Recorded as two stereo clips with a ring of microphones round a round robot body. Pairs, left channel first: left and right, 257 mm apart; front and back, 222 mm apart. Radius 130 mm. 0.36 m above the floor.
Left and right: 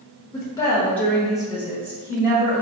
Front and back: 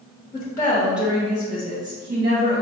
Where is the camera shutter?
I don't hear a camera shutter.